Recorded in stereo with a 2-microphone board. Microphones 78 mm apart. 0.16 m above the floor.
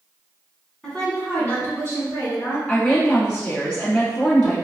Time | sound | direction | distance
0.8 | a woman speaking | 10° left (ahead or behind) | 1.3 m
2.7 | a woman speaking | 15° left (ahead or behind) | 1.8 m